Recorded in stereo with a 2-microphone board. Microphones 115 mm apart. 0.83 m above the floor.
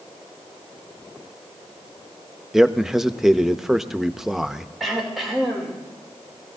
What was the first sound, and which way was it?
A man speaking, 5° right (ahead or behind).